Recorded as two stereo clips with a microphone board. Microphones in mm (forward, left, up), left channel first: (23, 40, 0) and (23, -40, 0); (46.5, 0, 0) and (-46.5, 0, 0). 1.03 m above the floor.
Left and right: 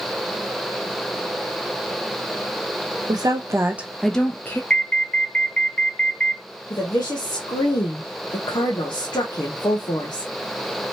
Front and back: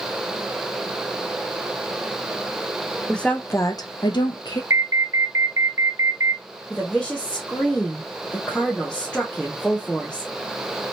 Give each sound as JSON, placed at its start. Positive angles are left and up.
{"t": 3.1, "sound": "a woman speaking", "azimuth_deg": -80, "distance_m": 0.9}
{"t": 4.7, "sound": "an alarm", "azimuth_deg": 155, "distance_m": 0.5}
{"t": 6.7, "sound": "a woman speaking", "azimuth_deg": 80, "distance_m": 0.9}